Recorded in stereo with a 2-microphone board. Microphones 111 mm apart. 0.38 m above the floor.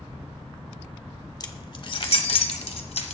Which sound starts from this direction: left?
Keys jangling, at 1.4 s.